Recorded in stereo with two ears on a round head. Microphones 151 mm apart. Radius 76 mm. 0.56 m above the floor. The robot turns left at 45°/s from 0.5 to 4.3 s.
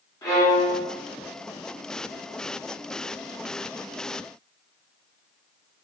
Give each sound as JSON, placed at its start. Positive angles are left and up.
{"t": 0.2, "sound": "a violin", "side_deg": 20, "distance_m": 1.0}